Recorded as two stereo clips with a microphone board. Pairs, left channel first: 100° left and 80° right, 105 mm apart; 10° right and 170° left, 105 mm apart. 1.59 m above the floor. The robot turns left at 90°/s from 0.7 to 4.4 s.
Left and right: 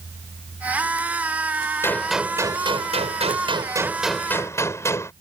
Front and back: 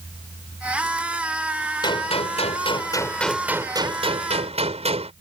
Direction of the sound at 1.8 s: 35° left.